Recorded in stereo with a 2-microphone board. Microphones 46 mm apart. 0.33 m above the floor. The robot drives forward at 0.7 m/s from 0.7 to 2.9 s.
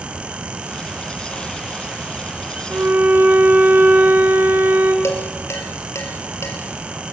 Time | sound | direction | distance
2.7 | a violin | 50° right (ahead or behind) | 3 m
5.0 | dishes clattering | 75° left (ahead or behind) | 5 m